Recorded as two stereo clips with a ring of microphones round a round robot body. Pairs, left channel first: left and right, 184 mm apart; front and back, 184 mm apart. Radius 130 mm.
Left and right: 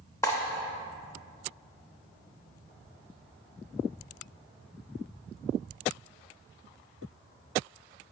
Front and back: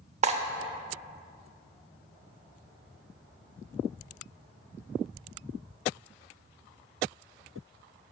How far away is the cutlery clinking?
About 0.6 m.